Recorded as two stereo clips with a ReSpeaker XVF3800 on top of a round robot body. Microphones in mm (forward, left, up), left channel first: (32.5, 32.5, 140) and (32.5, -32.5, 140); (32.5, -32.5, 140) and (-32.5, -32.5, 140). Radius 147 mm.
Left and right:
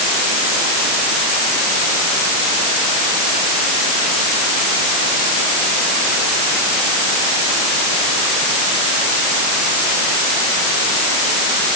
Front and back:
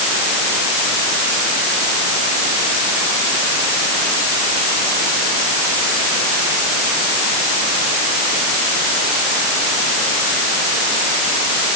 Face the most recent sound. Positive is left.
No sound to turn to.